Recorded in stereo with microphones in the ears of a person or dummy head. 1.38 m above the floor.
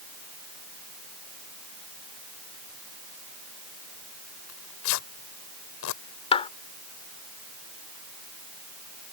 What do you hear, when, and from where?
4.5 s tearing paper: 70° left (ahead or behind)
6.3 s a clap: 25° left (ahead or behind)